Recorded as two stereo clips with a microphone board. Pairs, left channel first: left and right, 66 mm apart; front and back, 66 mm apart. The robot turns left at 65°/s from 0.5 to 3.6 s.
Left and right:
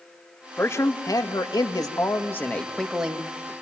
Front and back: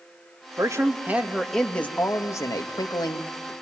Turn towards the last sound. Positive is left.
turn(degrees=-50)